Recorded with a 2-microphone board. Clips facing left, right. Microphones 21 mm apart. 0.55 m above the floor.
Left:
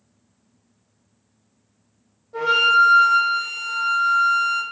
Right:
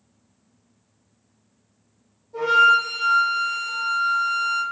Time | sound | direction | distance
2.3 | a flute | 60° left (ahead or behind) | 1.3 m